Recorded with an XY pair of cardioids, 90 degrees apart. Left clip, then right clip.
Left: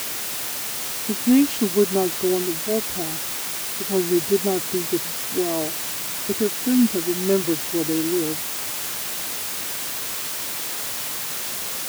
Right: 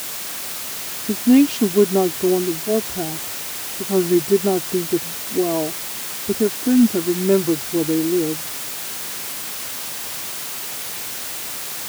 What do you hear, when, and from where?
1.1 s a woman speaking: 35° right